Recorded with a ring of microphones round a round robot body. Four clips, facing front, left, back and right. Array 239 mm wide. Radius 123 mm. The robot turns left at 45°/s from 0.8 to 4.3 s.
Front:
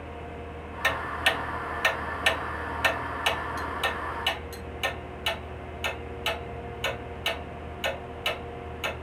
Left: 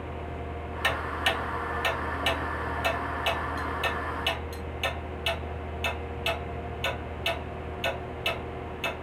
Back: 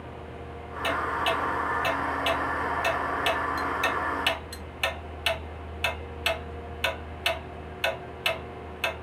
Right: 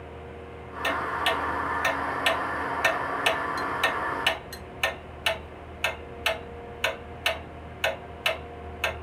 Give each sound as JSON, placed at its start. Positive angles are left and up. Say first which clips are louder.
{"t": 0.8, "sound": "ticking", "louder": "right 3 dB, back 2 dB", "azimuth_deg": 40, "distance_m": 1.0}